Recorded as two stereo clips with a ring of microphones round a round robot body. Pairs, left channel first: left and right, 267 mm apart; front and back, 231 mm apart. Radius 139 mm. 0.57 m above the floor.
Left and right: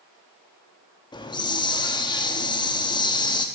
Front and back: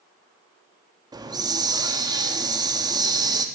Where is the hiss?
135° left, 0.8 m.